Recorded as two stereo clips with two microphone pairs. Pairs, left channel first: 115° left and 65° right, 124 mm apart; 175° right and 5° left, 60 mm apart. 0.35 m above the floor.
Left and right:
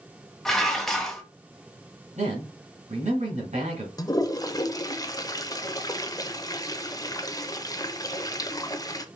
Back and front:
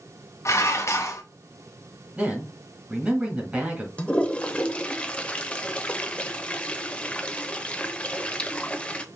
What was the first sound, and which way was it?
Dishes clattering, 160° right.